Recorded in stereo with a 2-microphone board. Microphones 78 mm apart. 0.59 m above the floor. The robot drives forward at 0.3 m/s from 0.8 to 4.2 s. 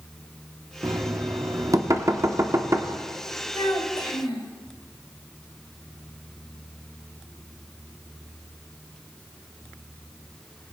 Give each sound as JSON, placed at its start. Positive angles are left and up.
{"t": 0.8, "sound": "knocking", "side_deg": -45, "distance_m": 0.8}
{"t": 3.5, "sound": "a child speaking", "side_deg": 75, "distance_m": 2.5}